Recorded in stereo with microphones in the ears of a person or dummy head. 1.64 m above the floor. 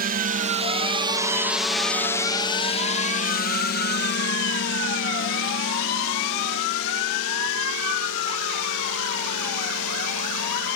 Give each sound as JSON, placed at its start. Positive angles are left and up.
{"t": 0.0, "sound": "a drone", "side_deg": -45}